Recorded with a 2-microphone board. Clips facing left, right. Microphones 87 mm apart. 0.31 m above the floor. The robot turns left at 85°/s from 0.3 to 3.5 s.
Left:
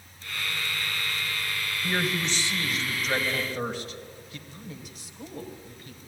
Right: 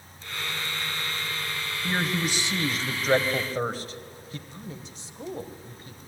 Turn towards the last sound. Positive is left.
turn(degrees=-30)  # may be behind; listen again after turning